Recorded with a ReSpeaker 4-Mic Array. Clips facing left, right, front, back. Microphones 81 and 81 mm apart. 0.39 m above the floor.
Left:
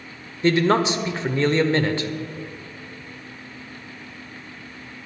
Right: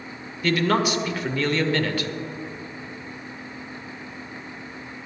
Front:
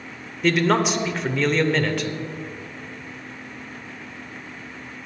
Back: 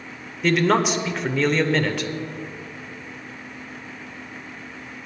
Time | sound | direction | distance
0.4 | a man speaking | 90° left | 0.9 m